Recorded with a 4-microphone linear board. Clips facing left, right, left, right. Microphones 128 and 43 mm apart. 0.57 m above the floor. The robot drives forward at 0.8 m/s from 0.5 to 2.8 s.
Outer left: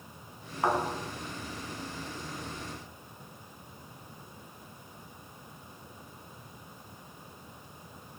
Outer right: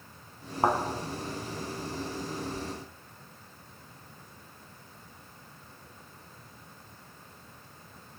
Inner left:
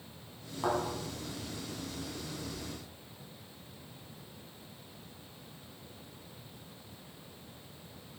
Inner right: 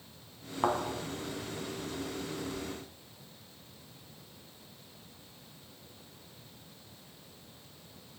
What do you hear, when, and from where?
0.6 s a thud: 35° right (ahead or behind), 1.4 m; by 0.8 s 30° right (ahead or behind), 1.5 m